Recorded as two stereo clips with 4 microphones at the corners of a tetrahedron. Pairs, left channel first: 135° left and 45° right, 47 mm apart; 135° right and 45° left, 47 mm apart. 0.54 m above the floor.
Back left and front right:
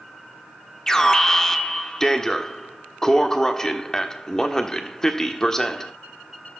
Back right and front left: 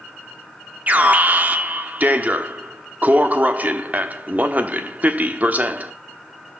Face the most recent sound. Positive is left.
turn(degrees=65)